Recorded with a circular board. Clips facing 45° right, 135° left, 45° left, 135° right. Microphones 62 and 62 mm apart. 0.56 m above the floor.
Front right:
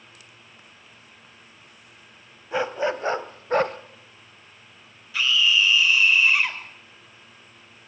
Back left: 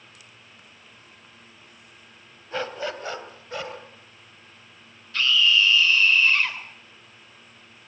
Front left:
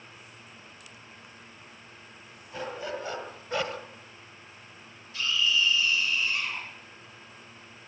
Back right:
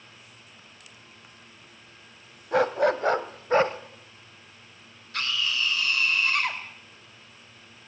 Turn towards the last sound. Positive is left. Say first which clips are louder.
# back left 1 dB, front left 1 dB
turn(degrees=-125)